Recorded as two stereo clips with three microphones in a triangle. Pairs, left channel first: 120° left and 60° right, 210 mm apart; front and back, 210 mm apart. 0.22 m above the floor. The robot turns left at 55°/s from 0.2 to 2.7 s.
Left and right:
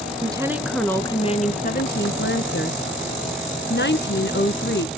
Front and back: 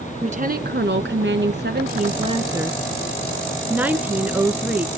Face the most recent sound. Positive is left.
turn(degrees=100)